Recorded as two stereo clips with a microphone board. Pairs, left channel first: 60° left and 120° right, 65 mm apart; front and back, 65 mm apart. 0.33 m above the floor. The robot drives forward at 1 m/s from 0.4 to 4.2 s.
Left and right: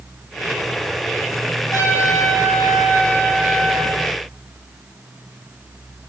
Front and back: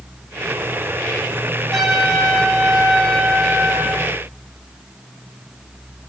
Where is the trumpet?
90° left, 6.5 m; by 4.0 s 110° left, 7 m.